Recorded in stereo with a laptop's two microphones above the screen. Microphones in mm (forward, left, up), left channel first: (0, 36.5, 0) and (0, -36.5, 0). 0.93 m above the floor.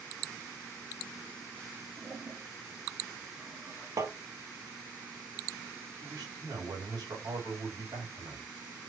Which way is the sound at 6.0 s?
70° right (ahead or behind).